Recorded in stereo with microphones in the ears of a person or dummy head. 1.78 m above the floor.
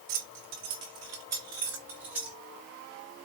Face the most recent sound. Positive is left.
turn(degrees=-5)  # may be behind; listen again after turning